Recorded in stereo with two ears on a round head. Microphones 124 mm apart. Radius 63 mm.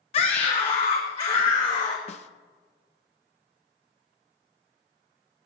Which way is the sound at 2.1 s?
50° left (ahead or behind).